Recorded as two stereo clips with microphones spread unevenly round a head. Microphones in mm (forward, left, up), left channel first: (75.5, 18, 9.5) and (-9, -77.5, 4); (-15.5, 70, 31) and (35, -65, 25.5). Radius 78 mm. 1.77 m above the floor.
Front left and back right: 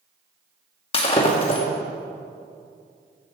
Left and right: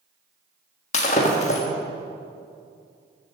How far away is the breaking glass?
About 1.6 m.